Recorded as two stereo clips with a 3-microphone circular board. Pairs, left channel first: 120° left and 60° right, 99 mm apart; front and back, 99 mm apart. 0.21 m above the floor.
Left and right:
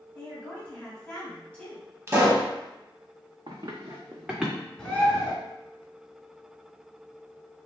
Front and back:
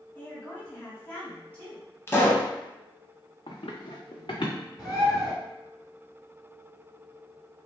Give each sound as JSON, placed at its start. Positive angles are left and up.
{"t": 0.1, "sound": "a woman speaking", "azimuth_deg": 60, "distance_m": 1.2}
{"t": 2.1, "sound": "a pop", "azimuth_deg": -35, "distance_m": 0.7}
{"t": 3.5, "sound": "running footsteps", "azimuth_deg": -25, "distance_m": 0.9}
{"t": 4.8, "sound": "a bird", "azimuth_deg": 45, "distance_m": 1.1}